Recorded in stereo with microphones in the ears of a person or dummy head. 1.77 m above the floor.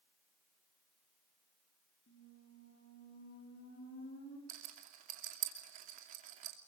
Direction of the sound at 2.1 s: 65° left (ahead or behind).